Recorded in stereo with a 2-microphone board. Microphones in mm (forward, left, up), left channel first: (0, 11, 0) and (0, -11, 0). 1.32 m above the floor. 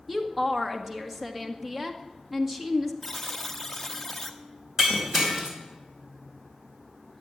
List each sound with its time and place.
0.1 s a woman speaking: 10° right (ahead or behind), 1.8 m
3.0 s a buzzer: 10° left (ahead or behind), 1.1 m
4.8 s breaking glass: 25° right (ahead or behind), 4 m